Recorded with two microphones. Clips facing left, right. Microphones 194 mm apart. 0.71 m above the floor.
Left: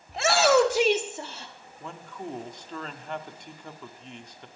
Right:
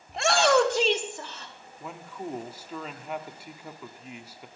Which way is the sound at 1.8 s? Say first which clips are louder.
Right 1 dB; 5° right (ahead or behind).